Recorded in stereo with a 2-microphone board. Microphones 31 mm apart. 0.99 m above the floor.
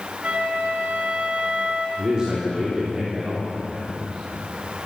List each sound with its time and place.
0.2 s a flute: 50° right (ahead or behind), 2 m
2.0 s a man speaking: 25° right (ahead or behind), 3 m